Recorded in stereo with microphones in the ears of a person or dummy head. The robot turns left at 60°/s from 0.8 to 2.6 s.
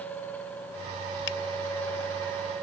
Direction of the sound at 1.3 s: 65° left (ahead or behind).